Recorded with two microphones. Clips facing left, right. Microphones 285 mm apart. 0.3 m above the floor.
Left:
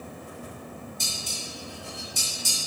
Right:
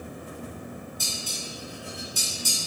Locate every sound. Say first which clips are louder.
1.0 s dishes clattering: right 1 dB; 25° left (ahead or behind), 1.1 m